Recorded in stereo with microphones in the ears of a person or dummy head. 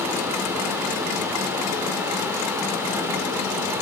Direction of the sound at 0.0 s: 10° right (ahead or behind).